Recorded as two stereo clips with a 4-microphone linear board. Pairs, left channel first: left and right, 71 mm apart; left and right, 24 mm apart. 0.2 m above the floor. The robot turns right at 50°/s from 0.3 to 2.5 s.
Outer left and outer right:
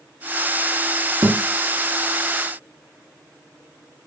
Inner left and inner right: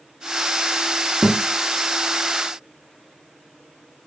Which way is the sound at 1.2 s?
55° right (ahead or behind).